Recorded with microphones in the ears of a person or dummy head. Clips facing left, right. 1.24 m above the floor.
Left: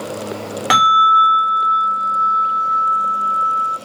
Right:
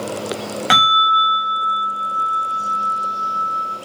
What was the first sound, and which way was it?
A bell, 5° right (ahead or behind).